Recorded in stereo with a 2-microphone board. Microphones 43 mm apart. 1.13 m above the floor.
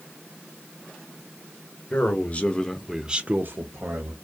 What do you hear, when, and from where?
1.9 s a man speaking: 40° left (ahead or behind), 1.0 m; by 4.1 s 70° right (ahead or behind), 1.0 m